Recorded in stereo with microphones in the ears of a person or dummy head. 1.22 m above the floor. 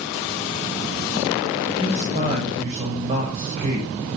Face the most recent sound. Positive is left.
turn(degrees=-35)  # may be behind; listen again after turning